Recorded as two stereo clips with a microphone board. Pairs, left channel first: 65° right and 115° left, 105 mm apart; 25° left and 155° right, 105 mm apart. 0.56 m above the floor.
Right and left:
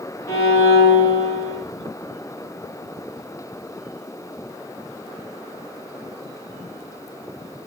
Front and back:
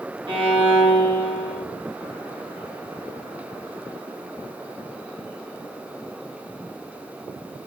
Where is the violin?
130° right, 2 m.